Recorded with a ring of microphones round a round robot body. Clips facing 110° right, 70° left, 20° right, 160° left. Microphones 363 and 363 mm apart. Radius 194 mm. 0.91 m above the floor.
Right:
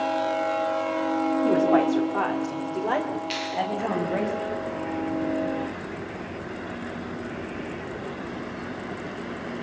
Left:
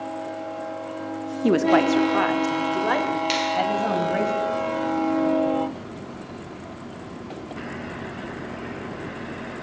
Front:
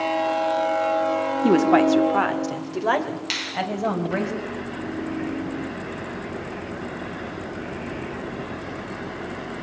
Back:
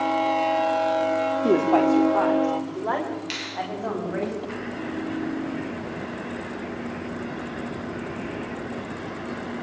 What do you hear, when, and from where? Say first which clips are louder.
1.4 s a woman speaking: left 4 dB, front 3 dB; 35° left, 1.7 m; by 4.3 s 10° left, 6 m
3.3 s a finger snap: left 5 dB, front 1 dB; 50° left, 4 m